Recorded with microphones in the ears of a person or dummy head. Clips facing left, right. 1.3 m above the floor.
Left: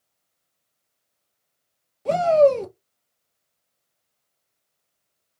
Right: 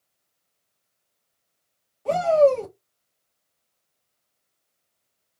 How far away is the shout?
About 0.8 m.